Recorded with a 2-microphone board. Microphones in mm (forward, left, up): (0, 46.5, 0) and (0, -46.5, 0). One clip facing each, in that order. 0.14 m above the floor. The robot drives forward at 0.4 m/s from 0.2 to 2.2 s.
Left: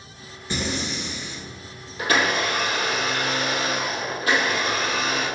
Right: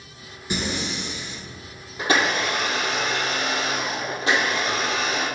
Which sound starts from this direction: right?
A blender, at 2.0 s.